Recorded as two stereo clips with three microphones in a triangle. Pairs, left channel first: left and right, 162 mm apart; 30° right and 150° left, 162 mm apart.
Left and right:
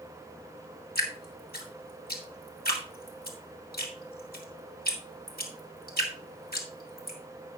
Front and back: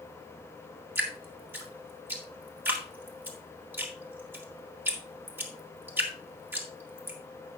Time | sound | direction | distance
0.9 | dripping | 75° left | 2.0 m